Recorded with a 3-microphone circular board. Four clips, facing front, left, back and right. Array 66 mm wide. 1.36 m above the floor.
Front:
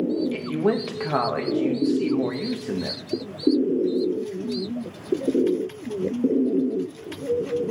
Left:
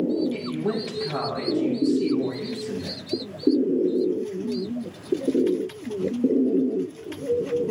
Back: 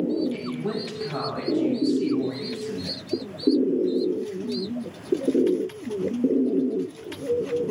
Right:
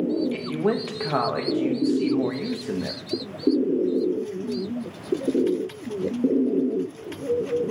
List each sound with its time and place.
0.3 s a woman speaking: 45° right, 1.5 m